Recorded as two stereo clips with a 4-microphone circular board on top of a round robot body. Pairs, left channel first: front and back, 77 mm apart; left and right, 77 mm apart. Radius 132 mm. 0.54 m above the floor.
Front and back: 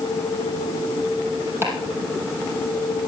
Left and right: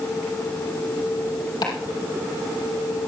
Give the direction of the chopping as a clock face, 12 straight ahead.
8 o'clock.